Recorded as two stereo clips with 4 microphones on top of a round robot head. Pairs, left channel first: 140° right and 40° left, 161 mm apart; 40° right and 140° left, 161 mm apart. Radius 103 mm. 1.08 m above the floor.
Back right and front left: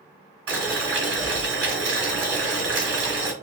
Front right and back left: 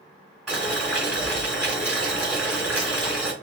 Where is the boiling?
50° left, 2.5 m.